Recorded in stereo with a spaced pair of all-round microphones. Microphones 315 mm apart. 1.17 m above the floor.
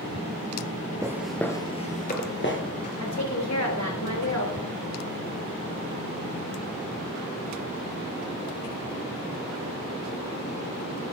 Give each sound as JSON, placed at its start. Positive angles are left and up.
{"t": 1.0, "sound": "footsteps", "side_deg": -10, "distance_m": 1.2}
{"t": 3.0, "sound": "a woman speaking", "side_deg": 60, "distance_m": 3.5}